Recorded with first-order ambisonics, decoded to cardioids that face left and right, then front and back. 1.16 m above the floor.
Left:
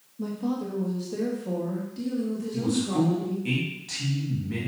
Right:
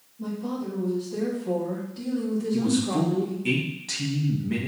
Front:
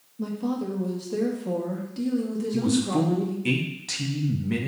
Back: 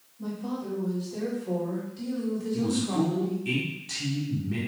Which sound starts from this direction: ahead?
A man speaking, at 2.5 s.